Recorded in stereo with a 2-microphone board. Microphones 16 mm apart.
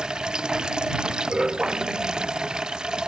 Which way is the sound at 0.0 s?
55° right (ahead or behind).